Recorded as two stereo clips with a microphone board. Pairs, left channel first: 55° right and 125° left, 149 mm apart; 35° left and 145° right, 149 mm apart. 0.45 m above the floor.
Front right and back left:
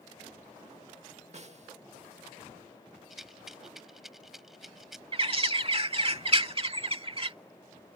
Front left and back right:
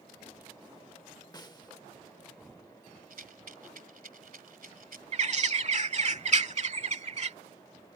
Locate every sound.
1.3 s a snare drum: 95° left
3.1 s a rattle: 150° right
5.1 s a bird: 175° left